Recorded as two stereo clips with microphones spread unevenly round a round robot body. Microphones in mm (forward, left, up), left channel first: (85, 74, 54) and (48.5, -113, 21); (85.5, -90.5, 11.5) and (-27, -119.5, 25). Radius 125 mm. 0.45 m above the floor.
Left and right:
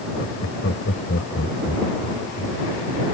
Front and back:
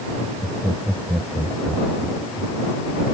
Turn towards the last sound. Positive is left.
turn(degrees=120)